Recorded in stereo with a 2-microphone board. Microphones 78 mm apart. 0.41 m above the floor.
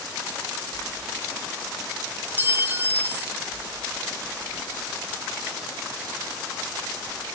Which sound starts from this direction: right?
A clink, at 2.4 s.